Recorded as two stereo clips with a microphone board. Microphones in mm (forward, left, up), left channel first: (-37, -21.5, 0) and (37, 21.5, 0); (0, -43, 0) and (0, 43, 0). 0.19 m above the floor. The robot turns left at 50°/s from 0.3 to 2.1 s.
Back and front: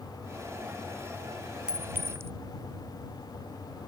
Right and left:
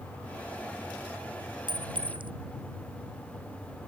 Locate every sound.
1.7 s a clink: 110° left; by 2.3 s 90° left